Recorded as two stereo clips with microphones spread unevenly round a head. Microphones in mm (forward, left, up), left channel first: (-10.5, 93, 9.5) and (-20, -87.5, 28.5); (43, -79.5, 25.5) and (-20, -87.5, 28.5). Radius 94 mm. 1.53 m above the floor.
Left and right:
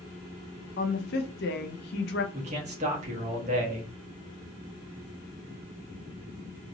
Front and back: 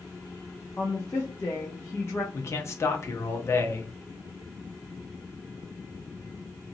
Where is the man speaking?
40° right, 1.1 m.